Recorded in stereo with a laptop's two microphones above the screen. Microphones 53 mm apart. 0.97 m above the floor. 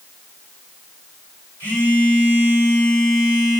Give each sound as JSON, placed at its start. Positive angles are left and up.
{"t": 1.6, "sound": "a phone buzzing", "side_deg": 45, "distance_m": 4.0}